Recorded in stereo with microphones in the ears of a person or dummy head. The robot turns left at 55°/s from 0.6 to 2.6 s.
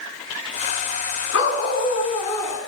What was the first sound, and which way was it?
A dog barking, 85° left.